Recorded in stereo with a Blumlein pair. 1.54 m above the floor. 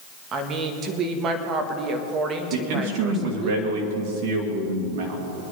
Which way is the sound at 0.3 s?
30° right.